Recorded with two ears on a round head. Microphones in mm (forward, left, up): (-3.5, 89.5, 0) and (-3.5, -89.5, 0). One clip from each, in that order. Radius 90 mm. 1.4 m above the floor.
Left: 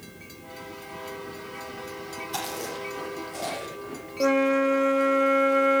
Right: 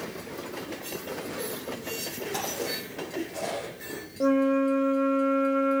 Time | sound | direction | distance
2.3 | chewing | 35° left (ahead or behind) | 8 m
4.2 | a flute | 55° left (ahead or behind) | 0.9 m